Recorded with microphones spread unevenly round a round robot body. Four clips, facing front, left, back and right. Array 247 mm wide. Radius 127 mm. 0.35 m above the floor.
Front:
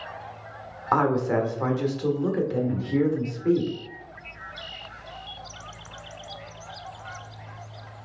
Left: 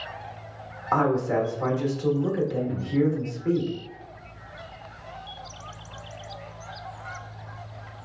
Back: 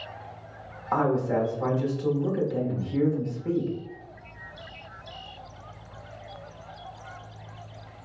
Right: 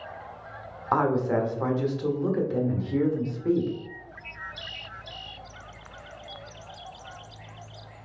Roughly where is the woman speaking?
Ahead right.